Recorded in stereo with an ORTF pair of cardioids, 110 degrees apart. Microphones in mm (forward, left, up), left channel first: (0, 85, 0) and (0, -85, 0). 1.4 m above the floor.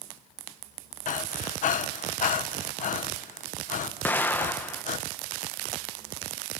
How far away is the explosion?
About 1.3 m.